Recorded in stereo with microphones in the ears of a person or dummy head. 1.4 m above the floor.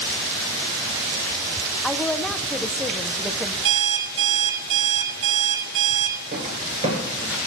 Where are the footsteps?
35° right (ahead or behind), 1.8 m; by 7.4 s centre (ahead or behind), 1.4 m.